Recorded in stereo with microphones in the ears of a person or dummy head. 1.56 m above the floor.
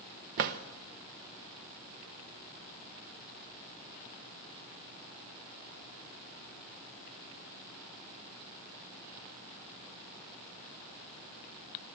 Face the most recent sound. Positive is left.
turn(degrees=-50)  # may be behind; listen again after turning